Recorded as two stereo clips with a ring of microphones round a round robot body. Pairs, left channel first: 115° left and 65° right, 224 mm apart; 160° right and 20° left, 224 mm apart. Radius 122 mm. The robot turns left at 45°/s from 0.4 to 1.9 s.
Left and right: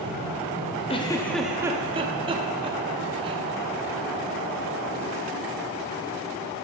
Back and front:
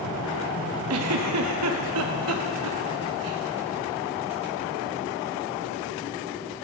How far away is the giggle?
About 0.7 m.